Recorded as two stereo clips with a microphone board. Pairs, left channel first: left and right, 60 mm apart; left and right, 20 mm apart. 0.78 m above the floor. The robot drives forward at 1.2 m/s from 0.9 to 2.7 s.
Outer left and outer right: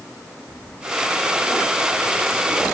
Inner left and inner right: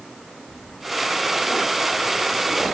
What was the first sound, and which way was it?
Only background noise.